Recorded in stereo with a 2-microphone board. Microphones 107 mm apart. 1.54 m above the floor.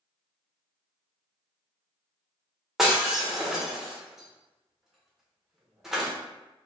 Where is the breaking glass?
5° right (ahead or behind), 0.8 m.